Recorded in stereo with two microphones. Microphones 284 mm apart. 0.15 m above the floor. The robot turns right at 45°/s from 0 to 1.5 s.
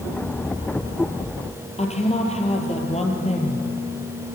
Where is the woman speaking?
20° left (ahead or behind), 4.5 m.